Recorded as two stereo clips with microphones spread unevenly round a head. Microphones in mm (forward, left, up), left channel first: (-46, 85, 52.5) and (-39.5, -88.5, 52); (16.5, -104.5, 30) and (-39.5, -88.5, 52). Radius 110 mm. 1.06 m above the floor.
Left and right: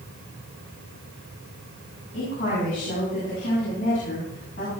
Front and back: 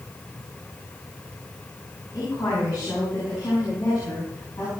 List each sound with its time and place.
2.1 s a woman speaking: 35° left, 8 m; by 4.7 s 40° left, 9.5 m